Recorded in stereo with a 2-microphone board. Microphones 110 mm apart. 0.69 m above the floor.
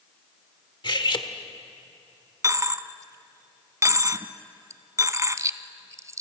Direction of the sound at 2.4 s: 30° right (ahead or behind).